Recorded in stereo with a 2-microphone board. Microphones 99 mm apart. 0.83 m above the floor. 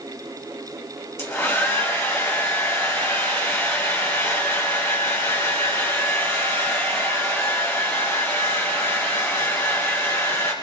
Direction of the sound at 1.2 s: 25° left (ahead or behind).